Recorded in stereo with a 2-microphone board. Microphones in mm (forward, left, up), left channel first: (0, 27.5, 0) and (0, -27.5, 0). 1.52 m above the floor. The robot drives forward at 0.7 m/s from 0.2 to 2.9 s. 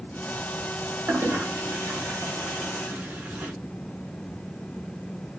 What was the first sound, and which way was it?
A toilet flushing, 40° right (ahead or behind).